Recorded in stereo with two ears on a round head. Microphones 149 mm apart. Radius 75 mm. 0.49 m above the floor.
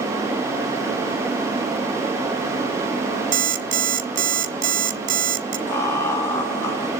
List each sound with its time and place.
3.3 s an alarm clock: 55° right (ahead or behind), 1.6 m
5.7 s laughter: 15° left (ahead or behind), 6.5 m